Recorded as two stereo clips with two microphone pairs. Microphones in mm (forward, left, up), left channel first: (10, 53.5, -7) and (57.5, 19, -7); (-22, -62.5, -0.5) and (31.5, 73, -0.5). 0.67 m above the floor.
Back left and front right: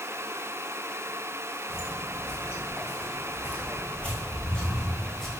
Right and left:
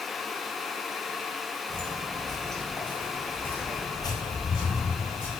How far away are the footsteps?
About 1.3 m.